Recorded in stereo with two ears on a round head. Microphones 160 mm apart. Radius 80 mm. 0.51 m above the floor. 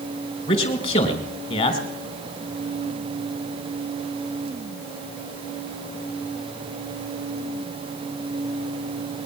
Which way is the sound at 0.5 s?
35° left (ahead or behind).